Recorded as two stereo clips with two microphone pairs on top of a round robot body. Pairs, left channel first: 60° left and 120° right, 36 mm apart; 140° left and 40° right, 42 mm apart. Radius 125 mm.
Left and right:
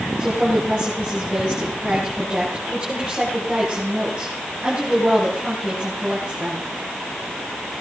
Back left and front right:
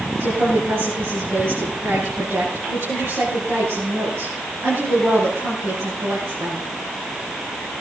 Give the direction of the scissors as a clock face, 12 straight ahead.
I don't hear scissors.